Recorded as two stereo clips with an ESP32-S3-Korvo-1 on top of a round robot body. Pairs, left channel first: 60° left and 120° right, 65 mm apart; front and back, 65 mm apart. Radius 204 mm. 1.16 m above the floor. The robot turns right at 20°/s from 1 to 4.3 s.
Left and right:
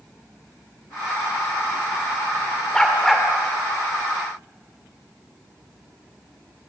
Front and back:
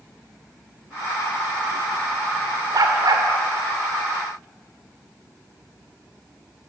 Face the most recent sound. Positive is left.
turn(degrees=175)